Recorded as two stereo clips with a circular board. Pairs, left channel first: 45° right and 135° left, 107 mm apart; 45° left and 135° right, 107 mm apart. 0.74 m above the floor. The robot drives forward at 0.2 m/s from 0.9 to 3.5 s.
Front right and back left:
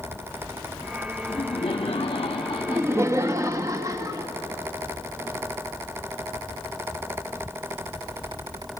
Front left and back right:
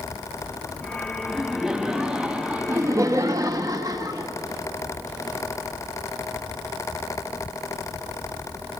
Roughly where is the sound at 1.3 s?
Ahead right.